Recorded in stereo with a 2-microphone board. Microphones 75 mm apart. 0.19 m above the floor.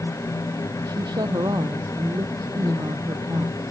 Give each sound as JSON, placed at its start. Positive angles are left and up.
{"t": 0.8, "sound": "a woman speaking", "side_deg": -70}